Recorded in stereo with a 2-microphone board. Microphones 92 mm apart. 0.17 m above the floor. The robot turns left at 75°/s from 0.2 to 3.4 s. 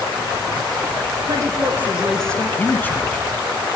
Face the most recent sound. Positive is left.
turn(degrees=5)  # may be behind; listen again after turning